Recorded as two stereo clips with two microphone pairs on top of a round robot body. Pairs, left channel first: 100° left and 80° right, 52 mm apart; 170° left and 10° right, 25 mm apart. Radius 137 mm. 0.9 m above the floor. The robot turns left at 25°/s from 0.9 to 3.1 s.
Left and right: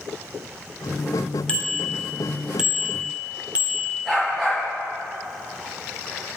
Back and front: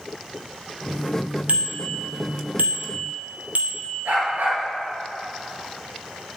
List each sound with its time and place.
1.5 s a bicycle bell: 30° left, 2.5 m; by 4.0 s 10° right, 2.5 m
4.0 s a dog barking: 10° left, 6 m